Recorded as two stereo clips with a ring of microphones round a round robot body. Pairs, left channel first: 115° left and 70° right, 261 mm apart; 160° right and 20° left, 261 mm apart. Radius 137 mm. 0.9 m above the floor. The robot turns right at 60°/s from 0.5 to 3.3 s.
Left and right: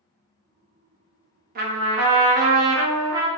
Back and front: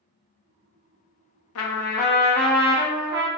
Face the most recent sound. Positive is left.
turn(degrees=-20)